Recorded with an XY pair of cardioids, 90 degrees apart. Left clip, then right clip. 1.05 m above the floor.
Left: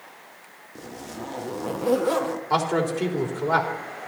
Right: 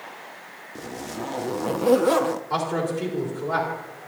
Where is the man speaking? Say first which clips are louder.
Left 2 dB; 45° left, 3.5 m.